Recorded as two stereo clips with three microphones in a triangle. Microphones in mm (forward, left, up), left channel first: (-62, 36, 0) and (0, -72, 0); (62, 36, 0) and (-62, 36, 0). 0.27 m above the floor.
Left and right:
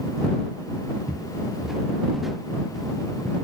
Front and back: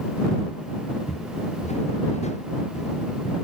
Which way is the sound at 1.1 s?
25° left.